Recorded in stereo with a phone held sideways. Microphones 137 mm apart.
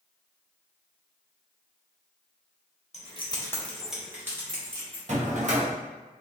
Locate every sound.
2.9 s keys jangling: 50° left (ahead or behind), 0.6 m; by 5.0 s 25° right (ahead or behind), 1.4 m
5.1 s a drawer: 55° right (ahead or behind), 0.6 m